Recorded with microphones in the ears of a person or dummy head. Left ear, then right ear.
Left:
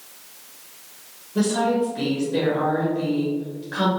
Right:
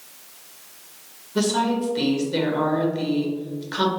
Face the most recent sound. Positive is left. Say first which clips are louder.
# left 1 dB
turn(degrees=-30)  # may be behind; listen again after turning